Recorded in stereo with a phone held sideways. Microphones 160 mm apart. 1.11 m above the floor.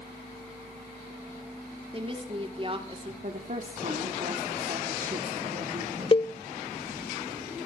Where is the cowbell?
35° left (ahead or behind), 0.5 m.